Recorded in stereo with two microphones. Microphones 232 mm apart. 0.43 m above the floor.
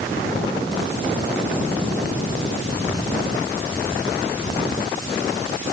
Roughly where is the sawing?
No sawing in this recording.